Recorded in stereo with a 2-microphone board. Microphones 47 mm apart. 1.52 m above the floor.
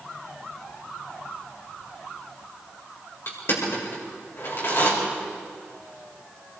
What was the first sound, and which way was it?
Crushing, 55° left (ahead or behind).